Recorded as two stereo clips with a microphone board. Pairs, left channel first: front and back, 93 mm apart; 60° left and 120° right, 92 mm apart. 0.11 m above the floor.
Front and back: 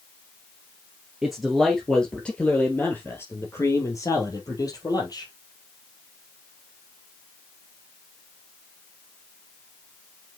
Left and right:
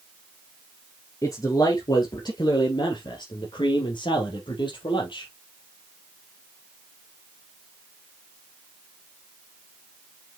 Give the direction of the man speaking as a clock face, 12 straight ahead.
9 o'clock.